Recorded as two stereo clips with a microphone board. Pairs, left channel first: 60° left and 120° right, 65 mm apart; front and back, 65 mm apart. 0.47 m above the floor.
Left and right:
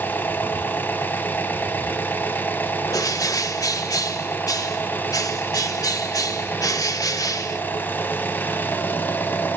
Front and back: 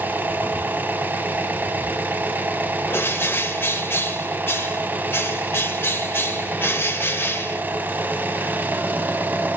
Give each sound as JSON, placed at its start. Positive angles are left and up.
{"t": 0.0, "sound": "an engine running", "azimuth_deg": 120, "distance_m": 1.1}
{"t": 2.9, "sound": "a bird", "azimuth_deg": 50, "distance_m": 0.8}